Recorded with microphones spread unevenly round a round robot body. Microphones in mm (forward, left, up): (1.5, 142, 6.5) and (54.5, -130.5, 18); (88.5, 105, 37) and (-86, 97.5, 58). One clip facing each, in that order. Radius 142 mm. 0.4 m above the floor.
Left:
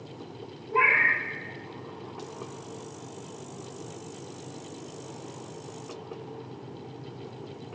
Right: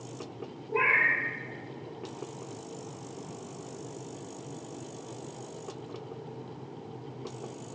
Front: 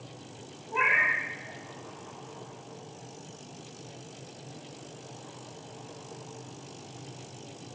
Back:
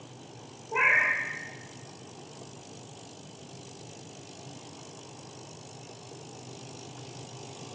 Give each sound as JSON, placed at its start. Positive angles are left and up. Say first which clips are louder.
{"t": 0.7, "sound": "a cat meowing", "louder": "left 1 dB, back 1 dB", "azimuth_deg": 165, "distance_m": 0.9}